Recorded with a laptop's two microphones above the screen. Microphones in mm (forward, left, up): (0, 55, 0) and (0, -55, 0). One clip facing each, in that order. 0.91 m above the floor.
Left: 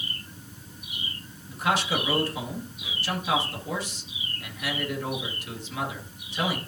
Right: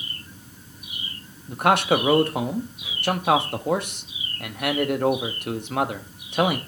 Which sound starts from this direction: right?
A man speaking, at 1.5 s.